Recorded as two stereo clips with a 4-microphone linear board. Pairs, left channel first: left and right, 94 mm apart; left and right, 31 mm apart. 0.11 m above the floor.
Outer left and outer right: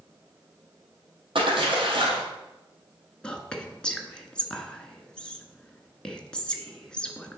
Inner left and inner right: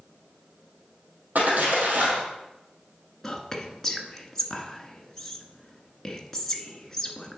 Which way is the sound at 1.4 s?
70° right (ahead or behind).